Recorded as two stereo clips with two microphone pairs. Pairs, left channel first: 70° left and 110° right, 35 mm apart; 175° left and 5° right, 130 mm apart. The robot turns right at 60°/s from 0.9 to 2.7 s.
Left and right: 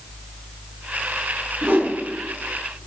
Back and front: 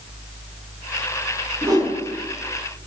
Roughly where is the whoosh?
Right.